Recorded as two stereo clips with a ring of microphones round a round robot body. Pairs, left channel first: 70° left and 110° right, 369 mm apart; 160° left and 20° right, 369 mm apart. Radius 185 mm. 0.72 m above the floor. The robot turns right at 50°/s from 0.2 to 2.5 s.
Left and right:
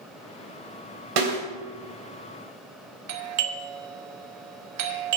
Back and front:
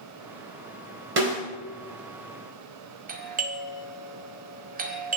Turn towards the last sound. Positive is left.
turn(degrees=-85)